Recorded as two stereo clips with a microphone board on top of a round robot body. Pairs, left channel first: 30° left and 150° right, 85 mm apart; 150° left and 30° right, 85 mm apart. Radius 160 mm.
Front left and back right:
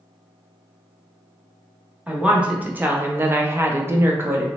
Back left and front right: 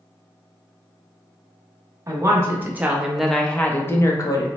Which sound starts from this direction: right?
A woman speaking, at 2.1 s.